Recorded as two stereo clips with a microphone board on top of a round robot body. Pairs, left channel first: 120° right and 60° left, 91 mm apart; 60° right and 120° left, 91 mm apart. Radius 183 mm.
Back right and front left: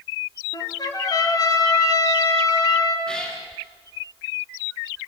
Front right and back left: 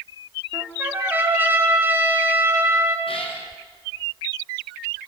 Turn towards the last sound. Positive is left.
turn(degrees=-40)